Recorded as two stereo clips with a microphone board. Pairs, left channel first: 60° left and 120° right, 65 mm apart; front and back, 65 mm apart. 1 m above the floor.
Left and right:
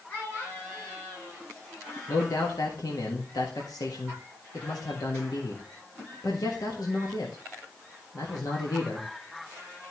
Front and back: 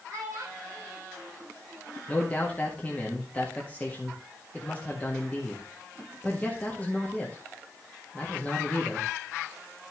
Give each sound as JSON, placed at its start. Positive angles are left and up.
{"t": 0.1, "sound": "a child speaking", "azimuth_deg": 125, "distance_m": 6.5}
{"t": 2.1, "sound": "a man speaking", "azimuth_deg": 65, "distance_m": 1.7}